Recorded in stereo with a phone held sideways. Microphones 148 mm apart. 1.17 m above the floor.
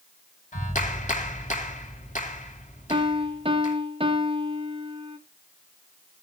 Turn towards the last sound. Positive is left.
turn(degrees=-40)  # may be behind; listen again after turning